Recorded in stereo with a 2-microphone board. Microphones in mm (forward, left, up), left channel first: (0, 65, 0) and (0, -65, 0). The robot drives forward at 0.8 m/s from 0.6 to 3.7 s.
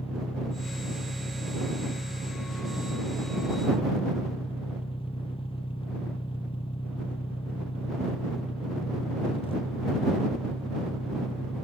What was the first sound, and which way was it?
An engine running, 50° left (ahead or behind).